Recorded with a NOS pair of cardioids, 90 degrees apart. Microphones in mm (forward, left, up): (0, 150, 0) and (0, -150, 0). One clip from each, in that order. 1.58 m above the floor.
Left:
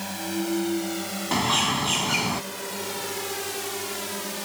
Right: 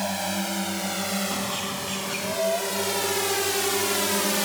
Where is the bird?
65° left.